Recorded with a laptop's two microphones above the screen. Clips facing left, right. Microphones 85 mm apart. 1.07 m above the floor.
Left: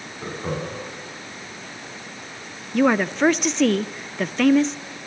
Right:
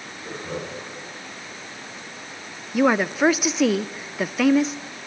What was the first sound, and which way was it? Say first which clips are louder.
Laughter: left 3 dB; 65° left (ahead or behind).